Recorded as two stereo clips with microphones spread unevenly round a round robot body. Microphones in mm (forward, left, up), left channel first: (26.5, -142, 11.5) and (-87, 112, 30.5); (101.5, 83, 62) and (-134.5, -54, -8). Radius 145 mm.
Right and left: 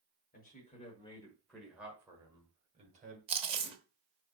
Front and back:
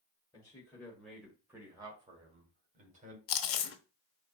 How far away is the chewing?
About 0.8 m.